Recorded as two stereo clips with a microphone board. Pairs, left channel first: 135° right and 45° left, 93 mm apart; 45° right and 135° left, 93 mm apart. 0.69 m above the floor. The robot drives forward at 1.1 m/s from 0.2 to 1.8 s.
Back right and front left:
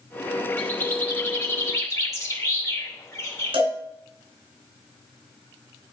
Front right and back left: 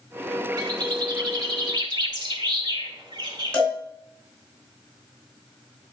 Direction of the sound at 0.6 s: 155° left.